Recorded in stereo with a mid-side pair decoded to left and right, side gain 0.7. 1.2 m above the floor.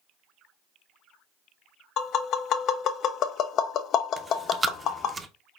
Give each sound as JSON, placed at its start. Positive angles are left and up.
{"t": 2.0, "sound": "tapping", "azimuth_deg": 50, "distance_m": 0.6}
{"t": 4.2, "sound": "chewing", "azimuth_deg": -15, "distance_m": 0.6}